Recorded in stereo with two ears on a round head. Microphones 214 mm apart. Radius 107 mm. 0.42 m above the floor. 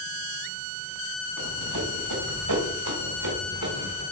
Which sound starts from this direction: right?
Running footsteps, at 1.4 s.